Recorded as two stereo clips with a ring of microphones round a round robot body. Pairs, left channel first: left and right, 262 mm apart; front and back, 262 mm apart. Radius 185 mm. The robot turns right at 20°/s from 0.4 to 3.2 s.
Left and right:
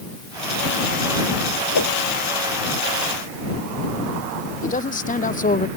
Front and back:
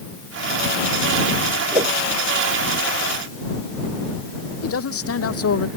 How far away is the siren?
No siren in this recording.